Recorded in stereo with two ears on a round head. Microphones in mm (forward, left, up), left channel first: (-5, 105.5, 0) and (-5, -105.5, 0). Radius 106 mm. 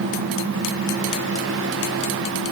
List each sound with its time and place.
Only background noise.